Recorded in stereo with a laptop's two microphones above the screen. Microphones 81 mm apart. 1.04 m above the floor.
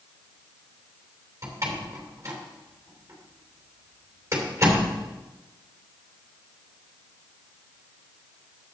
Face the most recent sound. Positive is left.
turn(degrees=-35)  # may be behind; listen again after turning